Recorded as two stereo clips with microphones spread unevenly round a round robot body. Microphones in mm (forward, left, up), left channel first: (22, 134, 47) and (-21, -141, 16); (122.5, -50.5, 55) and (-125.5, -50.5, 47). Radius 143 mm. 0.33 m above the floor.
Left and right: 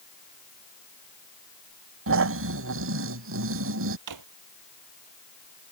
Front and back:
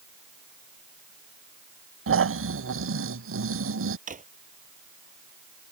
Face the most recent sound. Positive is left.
turn(degrees=-120)